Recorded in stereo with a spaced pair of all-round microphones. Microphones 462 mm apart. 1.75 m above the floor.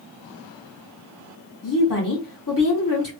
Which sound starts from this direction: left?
A woman speaking, at 1.6 s.